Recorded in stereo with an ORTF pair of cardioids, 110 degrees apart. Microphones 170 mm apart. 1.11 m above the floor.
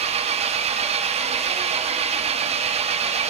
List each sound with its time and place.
0.0 s an engine running: 40° right, 0.8 m